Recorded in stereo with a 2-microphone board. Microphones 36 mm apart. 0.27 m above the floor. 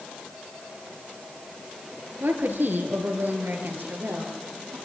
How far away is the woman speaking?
About 4.5 m.